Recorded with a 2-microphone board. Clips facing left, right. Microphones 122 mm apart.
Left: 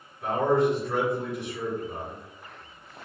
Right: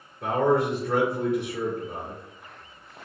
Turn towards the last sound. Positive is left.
turn(degrees=-60)  # may be behind; listen again after turning